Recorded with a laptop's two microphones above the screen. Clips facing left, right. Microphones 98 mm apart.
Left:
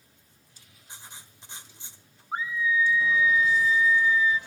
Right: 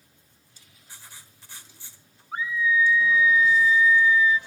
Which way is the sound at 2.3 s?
30° left (ahead or behind).